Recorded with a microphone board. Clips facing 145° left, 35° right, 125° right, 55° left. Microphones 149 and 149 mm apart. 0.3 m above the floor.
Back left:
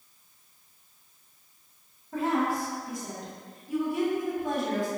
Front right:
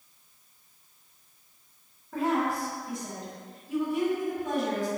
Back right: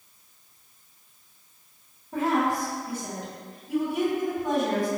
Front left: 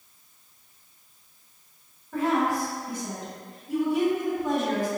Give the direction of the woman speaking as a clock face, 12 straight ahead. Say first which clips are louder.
Even, even; 6 o'clock.